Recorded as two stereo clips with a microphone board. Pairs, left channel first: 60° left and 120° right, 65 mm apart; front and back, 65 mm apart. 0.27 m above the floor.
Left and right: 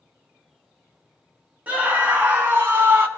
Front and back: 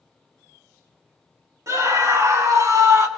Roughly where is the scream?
Behind.